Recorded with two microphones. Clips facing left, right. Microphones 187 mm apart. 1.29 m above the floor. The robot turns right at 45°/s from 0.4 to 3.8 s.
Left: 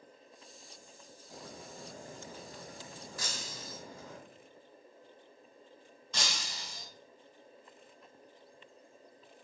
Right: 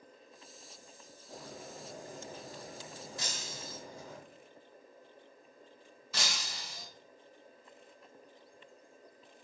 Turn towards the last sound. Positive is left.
turn(degrees=-5)  # may be behind; listen again after turning